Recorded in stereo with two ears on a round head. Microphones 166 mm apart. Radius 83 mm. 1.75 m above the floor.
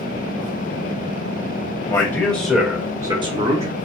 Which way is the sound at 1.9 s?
20° left (ahead or behind).